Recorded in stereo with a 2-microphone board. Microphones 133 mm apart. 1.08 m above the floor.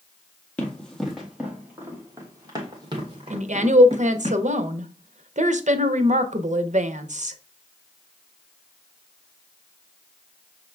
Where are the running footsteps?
10° left (ahead or behind), 1.5 m; by 4.3 s 50° right (ahead or behind), 2.5 m.